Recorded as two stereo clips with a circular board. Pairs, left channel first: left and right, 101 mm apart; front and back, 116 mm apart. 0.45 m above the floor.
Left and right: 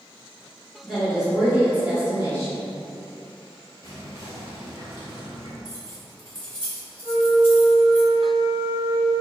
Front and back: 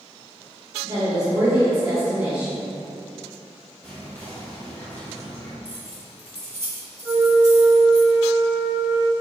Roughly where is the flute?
Behind.